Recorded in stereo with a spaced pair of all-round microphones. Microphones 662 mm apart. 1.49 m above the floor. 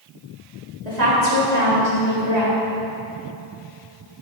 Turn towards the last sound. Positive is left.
turn(degrees=-80)